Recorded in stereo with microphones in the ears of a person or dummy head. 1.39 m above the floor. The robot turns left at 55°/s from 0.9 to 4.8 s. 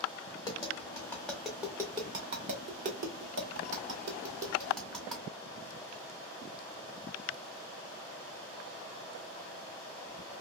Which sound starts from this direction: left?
Tapping, at 0.4 s.